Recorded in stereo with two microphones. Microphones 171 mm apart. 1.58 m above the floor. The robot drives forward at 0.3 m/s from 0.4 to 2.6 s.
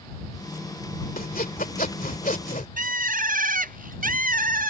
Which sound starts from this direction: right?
A bird, at 2.8 s.